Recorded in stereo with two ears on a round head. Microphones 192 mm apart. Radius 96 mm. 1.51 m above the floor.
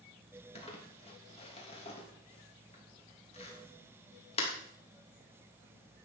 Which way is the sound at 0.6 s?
30° left (ahead or behind).